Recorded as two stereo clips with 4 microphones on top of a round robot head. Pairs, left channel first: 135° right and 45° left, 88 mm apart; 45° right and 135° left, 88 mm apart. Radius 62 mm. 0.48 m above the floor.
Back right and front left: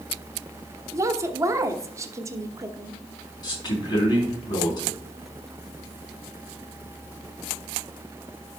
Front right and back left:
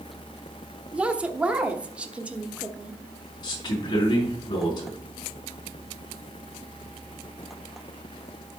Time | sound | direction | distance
0.9 | a woman speaking | 65° left | 1.1 m
3.4 | a man speaking | 90° right | 4.5 m